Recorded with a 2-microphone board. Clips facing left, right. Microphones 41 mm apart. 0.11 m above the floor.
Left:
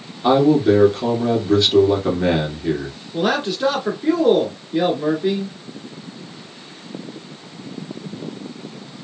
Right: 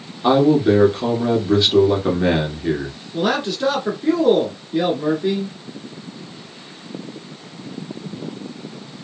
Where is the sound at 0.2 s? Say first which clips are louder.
Even; 15° right (ahead or behind), 1.5 m.